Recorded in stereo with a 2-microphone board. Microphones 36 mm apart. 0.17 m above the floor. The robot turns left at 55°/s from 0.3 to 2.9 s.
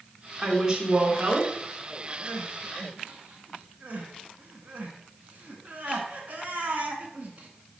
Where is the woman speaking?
10° right, 1.8 m; by 1.5 s 70° right, 1.8 m.